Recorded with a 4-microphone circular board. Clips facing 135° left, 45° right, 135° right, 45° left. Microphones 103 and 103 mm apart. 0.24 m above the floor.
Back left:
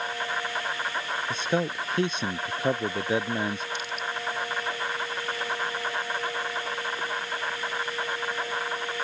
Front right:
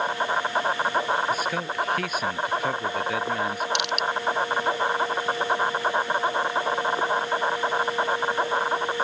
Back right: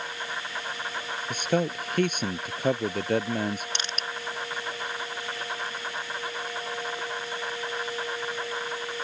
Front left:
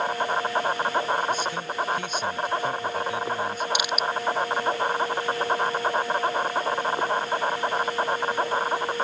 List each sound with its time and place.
0.0 s an insect: 5° left
1.3 s a man speaking: 165° right
3.8 s crushing: 35° right